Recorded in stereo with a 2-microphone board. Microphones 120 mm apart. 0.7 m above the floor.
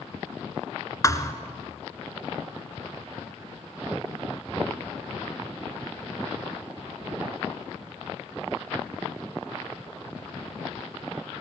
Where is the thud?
25° left (ahead or behind), 1.7 m.